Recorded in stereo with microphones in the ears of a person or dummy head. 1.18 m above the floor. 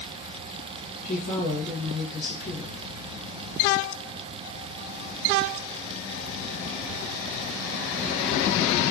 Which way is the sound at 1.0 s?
45° left (ahead or behind).